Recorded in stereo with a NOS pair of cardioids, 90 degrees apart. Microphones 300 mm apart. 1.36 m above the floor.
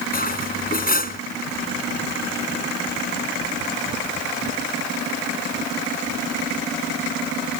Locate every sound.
0.1 s cutlery clinking: 30° left